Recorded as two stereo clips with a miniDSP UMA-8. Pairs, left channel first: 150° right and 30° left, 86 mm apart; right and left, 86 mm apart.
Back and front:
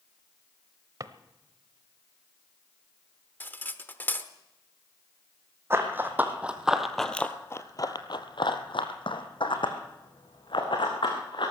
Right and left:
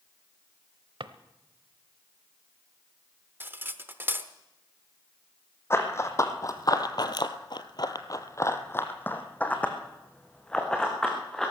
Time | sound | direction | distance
1.0 | a drawer | 75° left | 0.7 m
3.4 | cutlery clinking | 150° left | 0.8 m
5.7 | running footsteps | 30° right | 1.7 m